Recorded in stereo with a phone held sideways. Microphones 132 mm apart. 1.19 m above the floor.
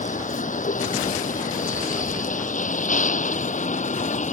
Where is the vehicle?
85° left; by 4.3 s 70° left (ahead or behind).